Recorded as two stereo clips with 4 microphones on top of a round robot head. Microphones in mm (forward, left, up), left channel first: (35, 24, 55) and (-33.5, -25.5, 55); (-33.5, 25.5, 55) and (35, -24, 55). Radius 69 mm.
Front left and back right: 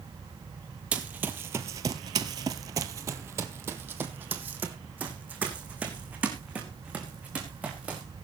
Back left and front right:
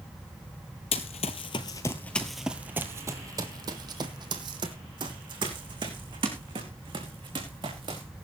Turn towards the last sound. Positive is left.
turn(degrees=-70)